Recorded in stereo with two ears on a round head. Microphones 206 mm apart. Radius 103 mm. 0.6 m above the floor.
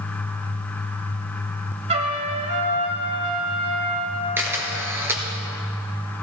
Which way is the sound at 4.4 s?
10° right (ahead or behind).